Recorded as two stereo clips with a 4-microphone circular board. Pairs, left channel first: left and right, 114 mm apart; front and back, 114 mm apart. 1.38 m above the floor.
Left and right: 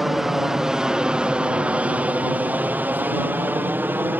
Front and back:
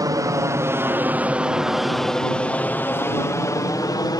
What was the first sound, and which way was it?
An aircraft, 175° right.